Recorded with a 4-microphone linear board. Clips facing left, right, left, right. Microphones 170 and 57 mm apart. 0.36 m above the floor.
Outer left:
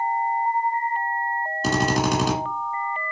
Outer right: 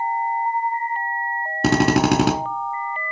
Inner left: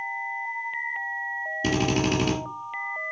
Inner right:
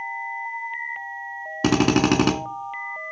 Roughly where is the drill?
Right.